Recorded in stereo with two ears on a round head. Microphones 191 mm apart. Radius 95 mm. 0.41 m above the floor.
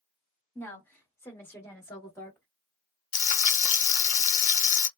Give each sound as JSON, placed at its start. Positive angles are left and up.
{"t": 0.6, "sound": "a woman speaking", "side_deg": 10, "distance_m": 1.4}
{"t": 3.1, "sound": "frying", "side_deg": 35, "distance_m": 0.6}